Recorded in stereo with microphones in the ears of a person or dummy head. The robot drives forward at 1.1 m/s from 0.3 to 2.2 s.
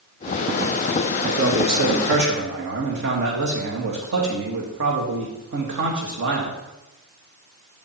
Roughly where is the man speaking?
Right.